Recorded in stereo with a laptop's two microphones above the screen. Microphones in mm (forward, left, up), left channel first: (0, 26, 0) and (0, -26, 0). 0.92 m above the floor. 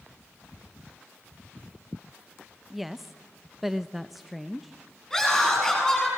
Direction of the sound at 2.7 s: 5° right (ahead or behind).